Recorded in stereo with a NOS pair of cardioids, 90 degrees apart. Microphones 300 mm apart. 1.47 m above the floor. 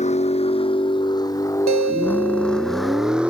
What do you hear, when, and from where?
0.0 s a vehicle: 20° left; by 3.3 s 5° right
1.7 s a guitar: 65° right